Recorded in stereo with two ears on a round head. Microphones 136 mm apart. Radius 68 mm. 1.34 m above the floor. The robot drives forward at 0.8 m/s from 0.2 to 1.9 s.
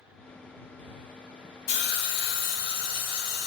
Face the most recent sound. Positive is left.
turn(degrees=75)  # may be behind; listen again after turning